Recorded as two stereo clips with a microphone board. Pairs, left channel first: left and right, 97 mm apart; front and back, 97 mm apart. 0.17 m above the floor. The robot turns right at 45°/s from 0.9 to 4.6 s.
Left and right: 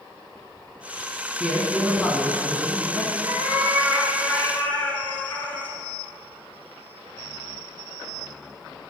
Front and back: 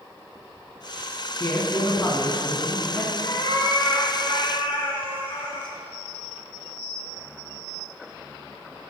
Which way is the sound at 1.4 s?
10° right.